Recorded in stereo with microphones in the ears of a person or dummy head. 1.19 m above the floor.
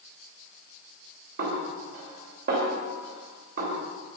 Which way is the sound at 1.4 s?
55° right (ahead or behind).